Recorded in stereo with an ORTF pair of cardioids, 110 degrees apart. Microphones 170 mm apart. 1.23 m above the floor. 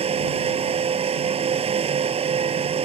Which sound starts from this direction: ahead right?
A fan, at 0.0 s.